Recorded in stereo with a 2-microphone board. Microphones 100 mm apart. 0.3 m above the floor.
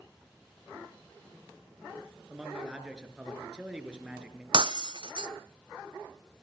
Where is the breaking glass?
55° right (ahead or behind), 0.9 m.